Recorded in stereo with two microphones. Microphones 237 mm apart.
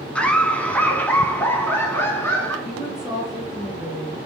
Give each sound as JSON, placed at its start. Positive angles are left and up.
{"t": 0.1, "sound": "laughter", "side_deg": 5, "distance_m": 1.3}
{"t": 2.6, "sound": "a woman speaking", "side_deg": 0, "distance_m": 3.5}